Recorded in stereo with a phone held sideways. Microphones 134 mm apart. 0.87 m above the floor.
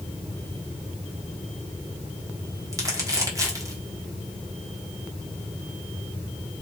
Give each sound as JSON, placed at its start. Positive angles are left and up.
{"t": 2.7, "sound": "crumpling", "side_deg": -25, "distance_m": 1.1}